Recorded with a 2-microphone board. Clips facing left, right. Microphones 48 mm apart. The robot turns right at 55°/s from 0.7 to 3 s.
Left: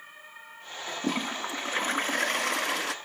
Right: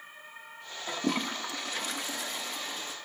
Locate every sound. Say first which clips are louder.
0.9 s a toilet flushing: even; 15° right, 0.5 m; by 3.0 s 100° left, 0.5 m